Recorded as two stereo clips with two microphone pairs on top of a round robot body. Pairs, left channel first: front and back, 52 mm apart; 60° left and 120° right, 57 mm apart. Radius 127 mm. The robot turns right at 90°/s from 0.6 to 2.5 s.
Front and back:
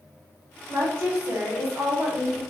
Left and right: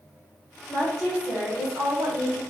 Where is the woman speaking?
125° left, 2.5 m; by 2.4 s 80° right, 2.5 m.